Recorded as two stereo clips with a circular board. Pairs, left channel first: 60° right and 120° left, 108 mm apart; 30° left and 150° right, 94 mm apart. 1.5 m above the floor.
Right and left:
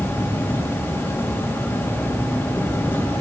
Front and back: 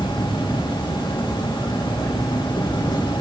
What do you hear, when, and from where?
0.0 s an insect: 10° left, 2.5 m